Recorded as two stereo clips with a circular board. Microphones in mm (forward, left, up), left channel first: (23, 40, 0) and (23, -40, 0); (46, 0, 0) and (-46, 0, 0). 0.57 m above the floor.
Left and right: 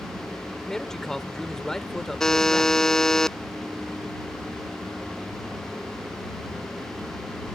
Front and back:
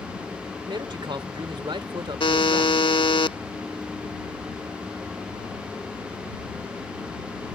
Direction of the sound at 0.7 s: 175° left.